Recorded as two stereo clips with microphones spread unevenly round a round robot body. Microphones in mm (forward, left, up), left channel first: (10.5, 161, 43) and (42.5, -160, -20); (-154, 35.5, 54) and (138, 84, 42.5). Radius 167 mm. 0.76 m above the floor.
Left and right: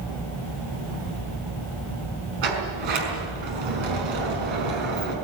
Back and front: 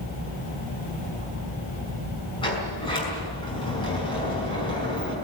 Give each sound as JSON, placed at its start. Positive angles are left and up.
{"t": 2.4, "sound": "a sliding door", "azimuth_deg": -95, "distance_m": 5.0}